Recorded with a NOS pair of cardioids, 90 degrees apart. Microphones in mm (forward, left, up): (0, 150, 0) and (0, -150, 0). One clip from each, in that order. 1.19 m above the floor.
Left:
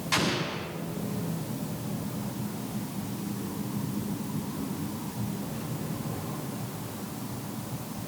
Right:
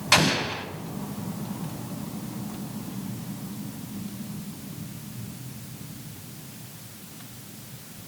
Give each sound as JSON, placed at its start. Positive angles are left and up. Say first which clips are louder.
{"t": 0.1, "sound": "an explosion", "louder": "right 7 dB", "azimuth_deg": -70, "distance_m": 4.0}